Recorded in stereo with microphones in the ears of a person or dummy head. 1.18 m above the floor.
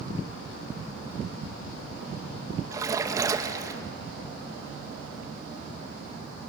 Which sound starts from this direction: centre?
A splash, at 2.7 s.